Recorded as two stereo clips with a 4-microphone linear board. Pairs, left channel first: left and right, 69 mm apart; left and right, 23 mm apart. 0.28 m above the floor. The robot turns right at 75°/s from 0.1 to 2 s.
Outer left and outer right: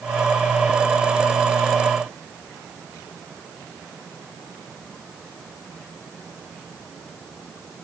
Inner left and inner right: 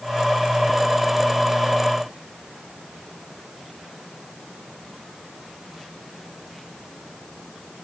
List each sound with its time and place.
Only background noise.